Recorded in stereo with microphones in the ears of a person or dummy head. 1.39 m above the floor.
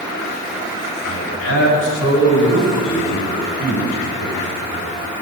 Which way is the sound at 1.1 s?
80° left.